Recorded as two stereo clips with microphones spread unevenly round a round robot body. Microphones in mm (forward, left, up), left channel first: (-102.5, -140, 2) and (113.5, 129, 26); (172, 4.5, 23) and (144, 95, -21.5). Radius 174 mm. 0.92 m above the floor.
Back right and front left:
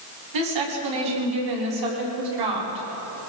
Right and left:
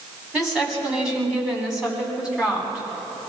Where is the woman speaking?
20° left, 7.5 m; by 3.3 s 25° left, 9 m.